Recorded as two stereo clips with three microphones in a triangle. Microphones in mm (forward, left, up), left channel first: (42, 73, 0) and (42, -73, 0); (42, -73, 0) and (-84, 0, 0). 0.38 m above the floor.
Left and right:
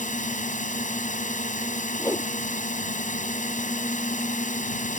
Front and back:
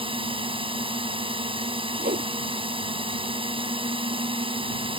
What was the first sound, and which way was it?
A drone, 105° left.